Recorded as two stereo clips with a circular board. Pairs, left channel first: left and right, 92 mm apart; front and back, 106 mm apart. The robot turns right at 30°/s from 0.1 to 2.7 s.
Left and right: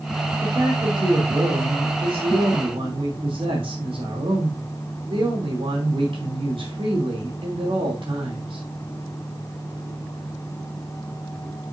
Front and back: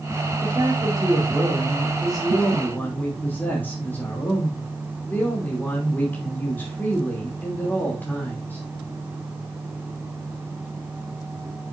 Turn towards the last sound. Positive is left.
turn(degrees=-75)